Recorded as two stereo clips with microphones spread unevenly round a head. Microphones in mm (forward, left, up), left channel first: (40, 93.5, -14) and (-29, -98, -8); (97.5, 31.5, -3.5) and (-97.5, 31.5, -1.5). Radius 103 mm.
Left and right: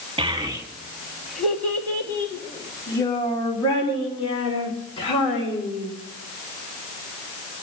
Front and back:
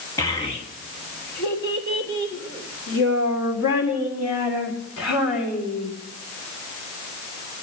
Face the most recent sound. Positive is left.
turn(degrees=10)